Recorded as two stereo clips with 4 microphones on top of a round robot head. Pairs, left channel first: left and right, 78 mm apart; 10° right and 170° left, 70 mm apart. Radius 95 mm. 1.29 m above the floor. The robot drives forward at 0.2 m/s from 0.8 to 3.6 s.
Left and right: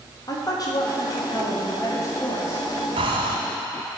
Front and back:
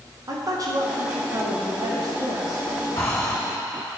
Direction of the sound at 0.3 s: 130° left.